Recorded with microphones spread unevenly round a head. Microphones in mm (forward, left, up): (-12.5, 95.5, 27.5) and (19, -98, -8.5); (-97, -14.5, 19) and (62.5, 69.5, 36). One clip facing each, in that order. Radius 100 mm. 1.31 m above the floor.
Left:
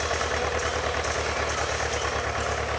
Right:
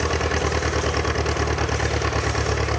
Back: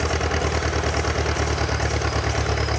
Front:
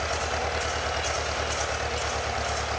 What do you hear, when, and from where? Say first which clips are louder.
0.0 s an engine running: right 5 dB, back 6 dB; 115° right